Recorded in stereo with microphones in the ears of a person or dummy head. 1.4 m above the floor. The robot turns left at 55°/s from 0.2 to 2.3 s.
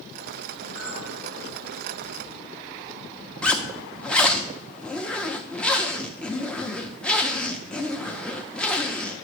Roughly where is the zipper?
Centre.